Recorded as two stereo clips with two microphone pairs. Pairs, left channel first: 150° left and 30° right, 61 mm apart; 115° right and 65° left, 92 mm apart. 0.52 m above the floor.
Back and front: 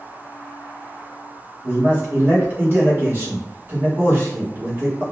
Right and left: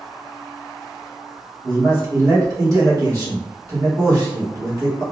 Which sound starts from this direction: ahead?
A man speaking, at 1.6 s.